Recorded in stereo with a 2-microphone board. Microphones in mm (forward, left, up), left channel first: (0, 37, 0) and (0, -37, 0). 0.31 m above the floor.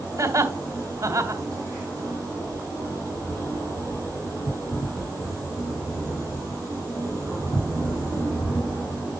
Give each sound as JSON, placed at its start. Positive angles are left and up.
{"t": 0.2, "sound": "laughter", "side_deg": -45, "distance_m": 2.0}